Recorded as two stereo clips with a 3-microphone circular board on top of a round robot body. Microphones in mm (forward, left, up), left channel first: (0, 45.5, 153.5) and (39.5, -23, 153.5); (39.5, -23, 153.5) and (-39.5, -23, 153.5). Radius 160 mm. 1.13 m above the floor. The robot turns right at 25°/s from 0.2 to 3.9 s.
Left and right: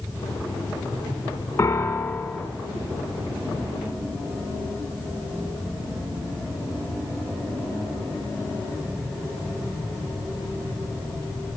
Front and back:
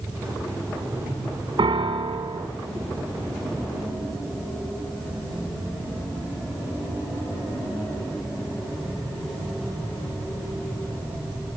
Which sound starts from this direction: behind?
A piano, at 1.6 s.